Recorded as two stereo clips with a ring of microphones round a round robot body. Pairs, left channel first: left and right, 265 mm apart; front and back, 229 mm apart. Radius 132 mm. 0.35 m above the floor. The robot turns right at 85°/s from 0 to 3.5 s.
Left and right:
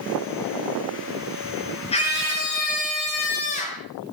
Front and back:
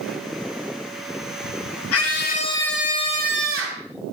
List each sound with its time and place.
1.9 s a scream: 20° left, 6 m; by 3.9 s 155° left, 6 m